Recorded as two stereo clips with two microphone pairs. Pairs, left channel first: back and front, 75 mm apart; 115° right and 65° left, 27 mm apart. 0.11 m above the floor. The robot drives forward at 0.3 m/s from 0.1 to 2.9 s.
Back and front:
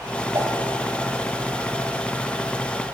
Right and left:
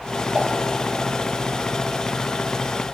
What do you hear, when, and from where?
0.3 s a whoosh: 40° left, 1.4 m